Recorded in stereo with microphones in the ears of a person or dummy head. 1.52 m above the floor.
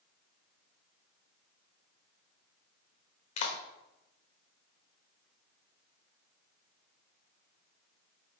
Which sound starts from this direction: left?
A clap, at 3.4 s.